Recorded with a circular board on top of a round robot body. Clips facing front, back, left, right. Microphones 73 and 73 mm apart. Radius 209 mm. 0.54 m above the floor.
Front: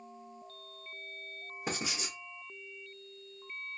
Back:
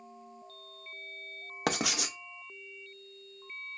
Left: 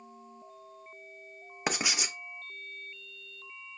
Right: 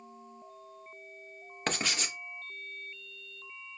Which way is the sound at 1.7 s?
170° left.